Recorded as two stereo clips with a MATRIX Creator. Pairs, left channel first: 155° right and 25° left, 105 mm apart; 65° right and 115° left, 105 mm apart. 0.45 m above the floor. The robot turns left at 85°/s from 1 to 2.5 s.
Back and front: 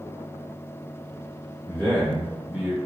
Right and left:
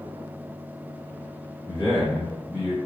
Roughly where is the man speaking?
Right.